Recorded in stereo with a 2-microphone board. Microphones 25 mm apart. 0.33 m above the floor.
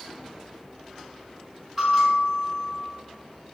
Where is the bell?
5° left (ahead or behind), 1.4 m.